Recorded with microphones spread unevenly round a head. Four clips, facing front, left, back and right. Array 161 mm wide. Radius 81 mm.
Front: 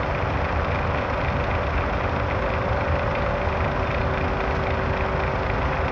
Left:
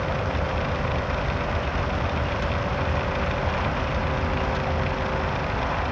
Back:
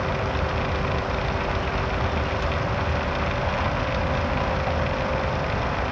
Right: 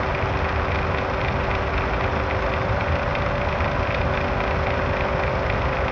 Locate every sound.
Only background noise.